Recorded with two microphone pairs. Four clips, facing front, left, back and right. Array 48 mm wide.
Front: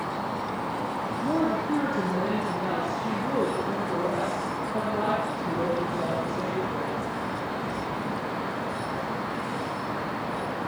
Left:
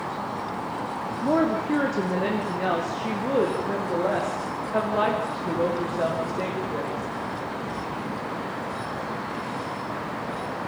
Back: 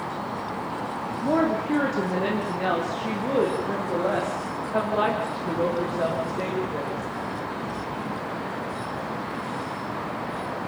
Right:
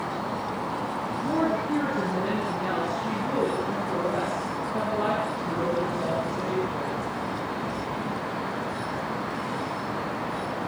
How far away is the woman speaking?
About 5.5 m.